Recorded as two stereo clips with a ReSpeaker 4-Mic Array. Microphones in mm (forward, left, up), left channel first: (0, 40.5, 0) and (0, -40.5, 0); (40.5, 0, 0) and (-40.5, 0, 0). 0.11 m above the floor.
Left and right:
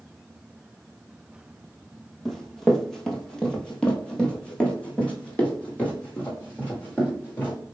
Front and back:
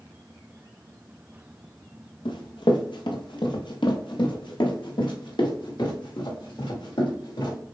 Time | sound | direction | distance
2.2 | running footsteps | straight ahead | 1.8 m